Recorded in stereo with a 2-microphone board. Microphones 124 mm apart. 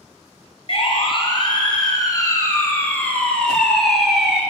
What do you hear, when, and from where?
0.7 s a siren: 50° left (ahead or behind), 3 m; by 4.4 s 5° right (ahead or behind), 3 m